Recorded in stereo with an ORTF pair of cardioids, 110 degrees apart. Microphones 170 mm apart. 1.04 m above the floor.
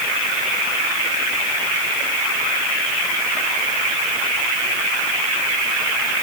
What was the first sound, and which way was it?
Only background noise.